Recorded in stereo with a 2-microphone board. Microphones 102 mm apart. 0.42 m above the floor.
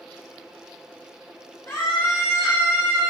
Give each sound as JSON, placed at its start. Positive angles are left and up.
{"t": 1.7, "sound": "a scream", "side_deg": 20, "distance_m": 1.8}